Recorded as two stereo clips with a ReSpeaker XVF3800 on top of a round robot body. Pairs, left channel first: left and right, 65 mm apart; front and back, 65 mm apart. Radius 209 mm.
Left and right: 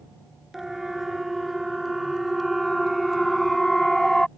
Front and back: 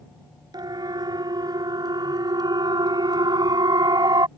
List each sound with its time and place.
0.5 s a siren: 175° right; by 4.3 s 175° left